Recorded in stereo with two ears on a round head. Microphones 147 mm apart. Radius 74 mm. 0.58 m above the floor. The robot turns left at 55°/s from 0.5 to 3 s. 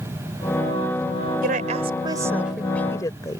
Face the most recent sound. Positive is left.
turn(degrees=20)  # may be behind; listen again after turning